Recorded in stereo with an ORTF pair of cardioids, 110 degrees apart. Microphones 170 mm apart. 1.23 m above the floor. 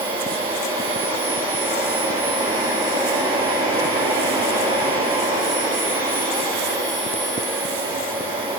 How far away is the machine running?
About 9 m.